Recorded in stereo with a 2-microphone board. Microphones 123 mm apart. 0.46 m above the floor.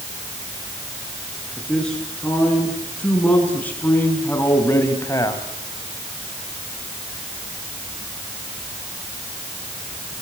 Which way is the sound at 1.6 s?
5° left (ahead or behind).